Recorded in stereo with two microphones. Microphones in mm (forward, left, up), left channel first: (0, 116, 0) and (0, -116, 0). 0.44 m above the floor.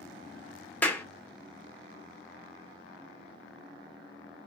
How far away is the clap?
About 0.9 m.